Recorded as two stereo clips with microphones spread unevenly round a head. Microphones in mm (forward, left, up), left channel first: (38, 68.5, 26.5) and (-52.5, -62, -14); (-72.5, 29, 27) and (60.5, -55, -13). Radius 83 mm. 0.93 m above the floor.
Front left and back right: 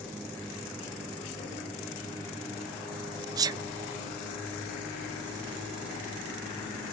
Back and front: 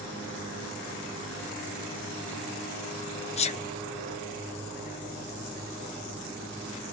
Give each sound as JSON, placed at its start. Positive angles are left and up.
{"t": 3.4, "sound": "a sneeze", "azimuth_deg": -160, "distance_m": 0.8}